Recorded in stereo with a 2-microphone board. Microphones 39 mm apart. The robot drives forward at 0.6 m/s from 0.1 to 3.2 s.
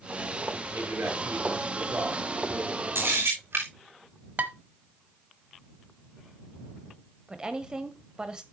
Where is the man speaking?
65° right (ahead or behind), 5 m; by 2.9 s 75° right (ahead or behind), 4.5 m.